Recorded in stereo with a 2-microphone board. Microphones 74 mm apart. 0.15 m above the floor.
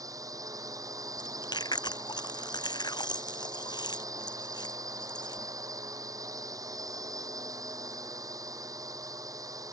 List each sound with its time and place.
0.0 s a drone: 55° right (ahead or behind)
1.2 s chewing: 80° left